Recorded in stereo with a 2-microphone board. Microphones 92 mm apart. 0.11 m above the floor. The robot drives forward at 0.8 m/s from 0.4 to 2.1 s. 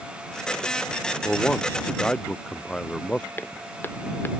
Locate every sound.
1.2 s a man speaking: 10° left (ahead or behind)
3.4 s footsteps: 25° left (ahead or behind)